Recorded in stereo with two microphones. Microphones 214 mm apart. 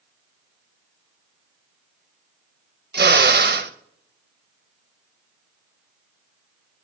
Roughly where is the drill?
Right.